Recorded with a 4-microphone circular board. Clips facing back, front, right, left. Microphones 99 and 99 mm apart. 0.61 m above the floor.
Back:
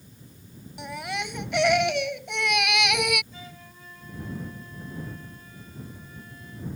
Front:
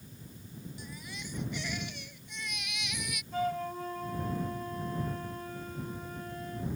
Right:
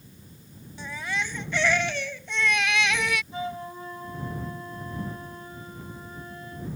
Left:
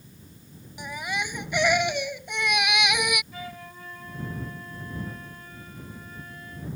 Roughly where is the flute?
Ahead right.